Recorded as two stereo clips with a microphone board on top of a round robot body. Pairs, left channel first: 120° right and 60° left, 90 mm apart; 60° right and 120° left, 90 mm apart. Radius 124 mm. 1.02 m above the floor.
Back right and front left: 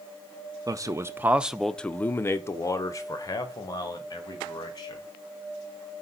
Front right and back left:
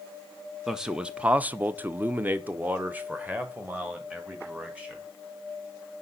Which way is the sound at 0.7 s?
35° left.